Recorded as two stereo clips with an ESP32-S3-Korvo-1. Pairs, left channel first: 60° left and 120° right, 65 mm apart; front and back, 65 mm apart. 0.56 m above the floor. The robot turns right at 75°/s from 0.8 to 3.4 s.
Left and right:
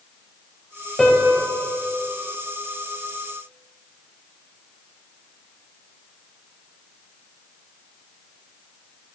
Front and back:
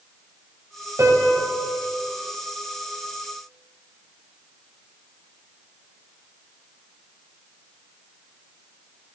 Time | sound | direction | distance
1.0 | a piano | 145° left | 1.9 m